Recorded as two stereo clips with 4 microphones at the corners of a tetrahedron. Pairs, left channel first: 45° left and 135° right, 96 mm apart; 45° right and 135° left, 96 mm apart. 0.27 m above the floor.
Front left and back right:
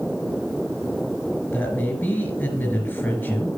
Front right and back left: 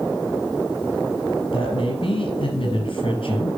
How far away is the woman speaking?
About 3.5 m.